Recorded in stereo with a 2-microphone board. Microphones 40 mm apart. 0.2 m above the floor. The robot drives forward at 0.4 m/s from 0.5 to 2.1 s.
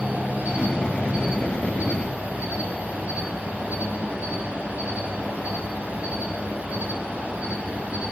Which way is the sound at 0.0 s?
45° right (ahead or behind).